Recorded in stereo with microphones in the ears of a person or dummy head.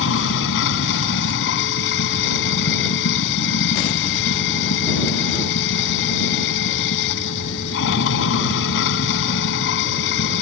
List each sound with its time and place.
0.0 s running water: 65° left (ahead or behind)